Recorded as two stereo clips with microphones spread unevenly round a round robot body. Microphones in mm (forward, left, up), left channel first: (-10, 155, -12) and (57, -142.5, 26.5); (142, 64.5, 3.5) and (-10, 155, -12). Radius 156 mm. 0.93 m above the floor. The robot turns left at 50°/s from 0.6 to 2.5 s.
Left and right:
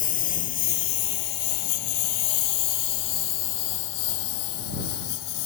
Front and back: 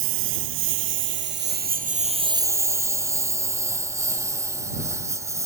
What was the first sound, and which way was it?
A lawn mower, 170° left.